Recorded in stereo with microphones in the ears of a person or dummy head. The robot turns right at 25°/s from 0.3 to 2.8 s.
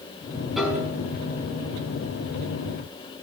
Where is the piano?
Centre (ahead or behind), 5.5 m; by 0.9 s 10° right (ahead or behind), 5.5 m.